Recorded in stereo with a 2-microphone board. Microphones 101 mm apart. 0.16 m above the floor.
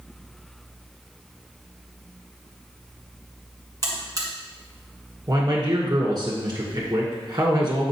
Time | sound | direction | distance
3.8 | a buzzer | 35° right (ahead or behind) | 1.6 m
5.3 | a man speaking | 45° right (ahead or behind) | 1.9 m